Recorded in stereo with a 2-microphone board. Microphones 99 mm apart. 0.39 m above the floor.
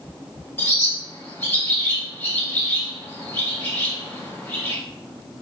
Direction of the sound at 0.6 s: 25° left (ahead or behind).